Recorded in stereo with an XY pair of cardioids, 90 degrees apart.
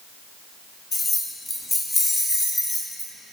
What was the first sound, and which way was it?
Keys jangling, 35° left.